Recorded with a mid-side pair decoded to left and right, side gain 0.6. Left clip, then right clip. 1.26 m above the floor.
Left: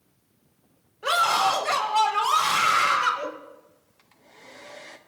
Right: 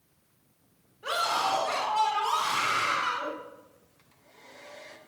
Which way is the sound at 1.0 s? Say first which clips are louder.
Left 6 dB; 55° left.